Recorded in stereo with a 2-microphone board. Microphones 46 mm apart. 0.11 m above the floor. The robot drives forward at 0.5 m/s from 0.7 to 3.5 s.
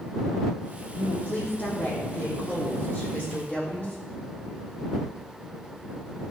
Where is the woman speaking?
45° left (ahead or behind), 4.5 m; by 4.0 s 35° left (ahead or behind), 5.5 m.